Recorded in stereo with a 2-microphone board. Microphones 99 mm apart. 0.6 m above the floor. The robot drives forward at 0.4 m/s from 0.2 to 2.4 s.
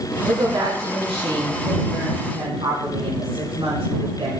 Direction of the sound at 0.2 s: 80° right.